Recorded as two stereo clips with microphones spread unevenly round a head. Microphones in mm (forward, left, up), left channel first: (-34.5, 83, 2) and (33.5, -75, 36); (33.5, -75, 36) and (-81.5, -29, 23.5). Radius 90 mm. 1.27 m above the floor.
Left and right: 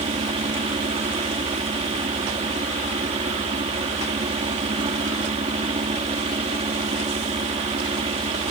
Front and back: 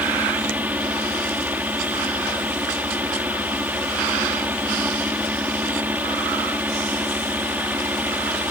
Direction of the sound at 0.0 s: 125° right.